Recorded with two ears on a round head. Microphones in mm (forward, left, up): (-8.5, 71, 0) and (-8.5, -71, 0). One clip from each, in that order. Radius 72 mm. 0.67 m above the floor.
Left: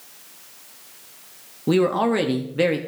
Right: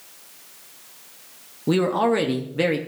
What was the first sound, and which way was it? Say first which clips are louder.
A man speaking: left 1 dB; centre (ahead or behind).